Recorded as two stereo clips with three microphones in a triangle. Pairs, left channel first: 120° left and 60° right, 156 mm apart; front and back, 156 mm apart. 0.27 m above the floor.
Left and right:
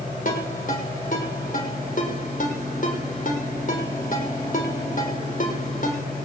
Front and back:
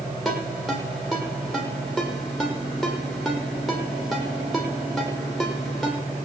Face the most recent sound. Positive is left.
turn(degrees=90)